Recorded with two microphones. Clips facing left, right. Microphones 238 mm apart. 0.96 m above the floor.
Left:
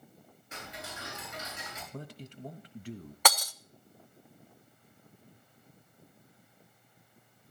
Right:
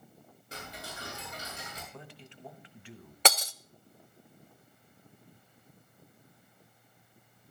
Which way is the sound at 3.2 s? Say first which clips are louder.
Right 2 dB; 25° right (ahead or behind).